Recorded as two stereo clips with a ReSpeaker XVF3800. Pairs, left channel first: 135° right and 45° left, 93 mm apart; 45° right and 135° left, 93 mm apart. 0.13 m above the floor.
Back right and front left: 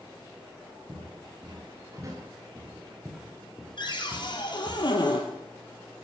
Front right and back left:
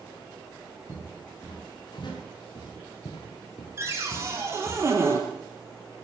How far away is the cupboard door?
About 2.5 m.